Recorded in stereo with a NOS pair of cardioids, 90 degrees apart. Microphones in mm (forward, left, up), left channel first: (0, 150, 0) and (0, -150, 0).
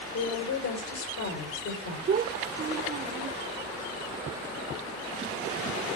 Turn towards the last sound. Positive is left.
turn(degrees=-35)